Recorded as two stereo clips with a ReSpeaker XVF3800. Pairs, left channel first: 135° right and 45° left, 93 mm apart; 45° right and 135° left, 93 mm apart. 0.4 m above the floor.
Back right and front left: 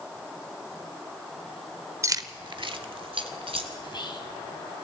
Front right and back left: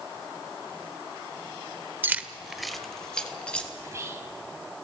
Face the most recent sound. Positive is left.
turn(degrees=-165)